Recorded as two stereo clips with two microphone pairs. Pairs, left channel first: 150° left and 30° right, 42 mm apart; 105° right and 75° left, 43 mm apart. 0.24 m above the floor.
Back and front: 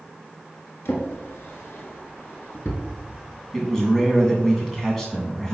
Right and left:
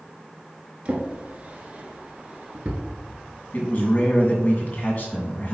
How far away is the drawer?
About 1.4 m.